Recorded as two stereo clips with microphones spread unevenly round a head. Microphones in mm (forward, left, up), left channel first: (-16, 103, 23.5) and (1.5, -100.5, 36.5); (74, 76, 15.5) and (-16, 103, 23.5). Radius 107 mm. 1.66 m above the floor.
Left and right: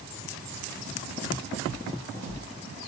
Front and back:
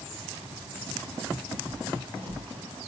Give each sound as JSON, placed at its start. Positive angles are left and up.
{"t": 1.7, "sound": "footsteps", "azimuth_deg": -145, "distance_m": 5.0}